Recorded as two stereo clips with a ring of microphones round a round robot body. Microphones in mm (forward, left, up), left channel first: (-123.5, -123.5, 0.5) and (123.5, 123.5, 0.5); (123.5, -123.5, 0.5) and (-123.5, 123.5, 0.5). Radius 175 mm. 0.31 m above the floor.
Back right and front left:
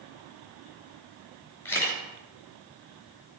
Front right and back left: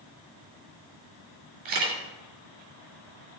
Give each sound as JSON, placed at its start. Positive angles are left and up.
{"t": 1.6, "sound": "a camera shutter", "azimuth_deg": 140, "distance_m": 3.5}